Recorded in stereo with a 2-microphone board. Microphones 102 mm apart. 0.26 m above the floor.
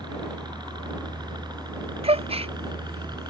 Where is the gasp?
75° right (ahead or behind).